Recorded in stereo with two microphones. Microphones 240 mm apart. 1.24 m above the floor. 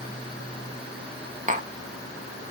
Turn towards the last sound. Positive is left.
turn(degrees=-30)  # may be behind; listen again after turning